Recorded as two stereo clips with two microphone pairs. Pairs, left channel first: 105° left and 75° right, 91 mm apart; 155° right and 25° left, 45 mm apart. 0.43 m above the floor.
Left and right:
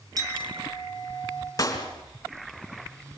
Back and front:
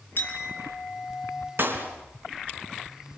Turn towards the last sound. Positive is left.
turn(degrees=55)